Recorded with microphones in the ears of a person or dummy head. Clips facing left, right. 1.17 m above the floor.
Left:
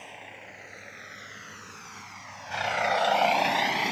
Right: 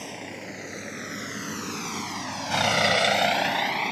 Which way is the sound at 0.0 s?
55° right (ahead or behind).